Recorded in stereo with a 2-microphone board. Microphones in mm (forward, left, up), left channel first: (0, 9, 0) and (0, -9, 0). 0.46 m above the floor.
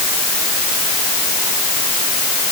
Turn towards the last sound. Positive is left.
No sound to turn to.